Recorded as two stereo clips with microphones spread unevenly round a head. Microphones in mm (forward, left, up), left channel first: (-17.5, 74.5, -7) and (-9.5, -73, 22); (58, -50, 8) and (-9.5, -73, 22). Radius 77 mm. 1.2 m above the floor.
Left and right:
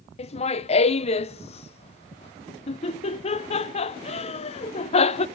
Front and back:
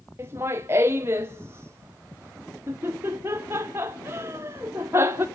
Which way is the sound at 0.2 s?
130° left.